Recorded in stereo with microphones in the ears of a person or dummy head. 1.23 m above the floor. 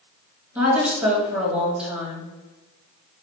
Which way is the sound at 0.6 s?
10° right (ahead or behind).